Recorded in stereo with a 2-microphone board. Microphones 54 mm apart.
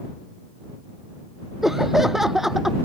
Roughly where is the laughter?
Centre.